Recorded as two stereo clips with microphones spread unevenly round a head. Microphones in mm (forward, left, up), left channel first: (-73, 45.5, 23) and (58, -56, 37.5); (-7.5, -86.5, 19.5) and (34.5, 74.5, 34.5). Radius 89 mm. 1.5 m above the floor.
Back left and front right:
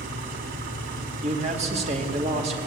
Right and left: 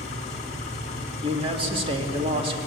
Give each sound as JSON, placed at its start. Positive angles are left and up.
{"t": 0.0, "sound": "an engine running", "azimuth_deg": -55, "distance_m": 3.5}
{"t": 1.2, "sound": "a man speaking", "azimuth_deg": 15, "distance_m": 2.5}